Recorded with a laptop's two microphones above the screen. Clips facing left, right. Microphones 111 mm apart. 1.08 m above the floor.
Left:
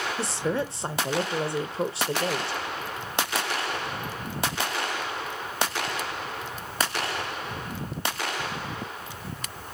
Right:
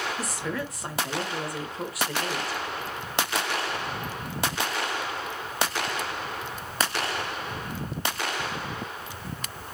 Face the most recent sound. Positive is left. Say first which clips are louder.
# left 4 dB
turn(degrees=30)  # may be behind; listen again after turning